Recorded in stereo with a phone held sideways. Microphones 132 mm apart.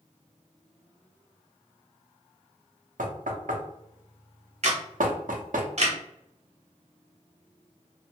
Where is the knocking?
80° right, 0.6 m.